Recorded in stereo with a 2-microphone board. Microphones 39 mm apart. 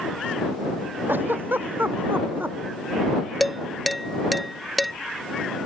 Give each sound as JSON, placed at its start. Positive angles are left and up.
{"t": 1.1, "sound": "a giggle", "side_deg": -70}
{"t": 3.4, "sound": "dishes clattering", "side_deg": 0}